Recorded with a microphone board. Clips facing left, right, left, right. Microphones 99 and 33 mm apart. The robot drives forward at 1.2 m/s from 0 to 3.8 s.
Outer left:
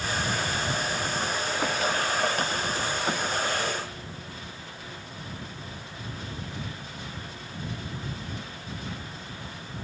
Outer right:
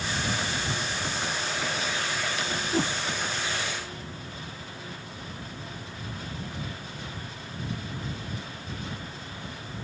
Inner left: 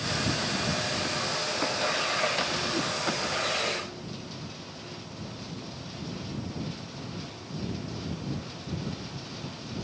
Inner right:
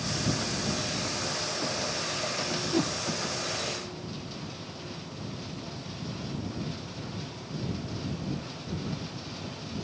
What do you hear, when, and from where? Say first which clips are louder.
2.7 s a whoosh: outer right 4 dB, inner right 2 dB; 50° right (ahead or behind); by 2.9 s 60° right (ahead or behind)